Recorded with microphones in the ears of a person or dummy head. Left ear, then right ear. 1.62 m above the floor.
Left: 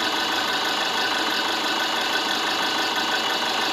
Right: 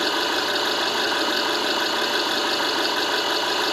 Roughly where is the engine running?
Left.